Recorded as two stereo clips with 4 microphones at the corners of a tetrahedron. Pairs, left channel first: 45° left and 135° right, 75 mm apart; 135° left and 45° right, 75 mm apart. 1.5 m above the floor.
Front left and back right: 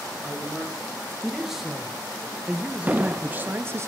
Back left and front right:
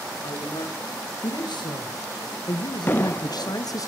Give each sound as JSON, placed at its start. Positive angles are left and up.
{"t": 0.2, "sound": "a man speaking", "azimuth_deg": 135, "distance_m": 2.5}
{"t": 2.9, "sound": "an explosion", "azimuth_deg": 175, "distance_m": 0.7}